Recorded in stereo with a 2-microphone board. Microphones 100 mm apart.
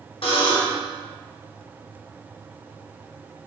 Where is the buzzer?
65° left (ahead or behind), 0.7 m.